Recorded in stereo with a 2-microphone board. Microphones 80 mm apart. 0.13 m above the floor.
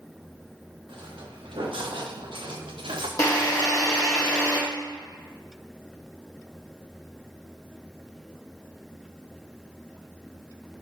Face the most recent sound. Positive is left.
turn(degrees=40)  # may be behind; listen again after turning